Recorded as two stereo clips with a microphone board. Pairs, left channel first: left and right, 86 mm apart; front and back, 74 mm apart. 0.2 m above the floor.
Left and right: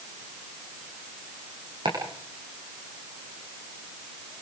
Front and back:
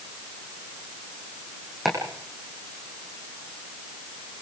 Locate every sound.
1.9 s chopping: 90° right, 9.5 m